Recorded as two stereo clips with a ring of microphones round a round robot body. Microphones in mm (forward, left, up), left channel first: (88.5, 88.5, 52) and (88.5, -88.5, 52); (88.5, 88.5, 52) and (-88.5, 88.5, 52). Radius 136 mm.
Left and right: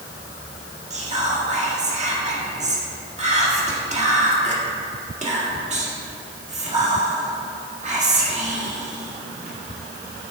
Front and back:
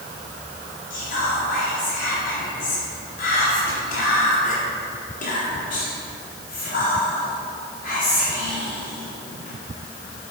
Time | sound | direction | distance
0.9 | whispering | 45° right | 1.8 m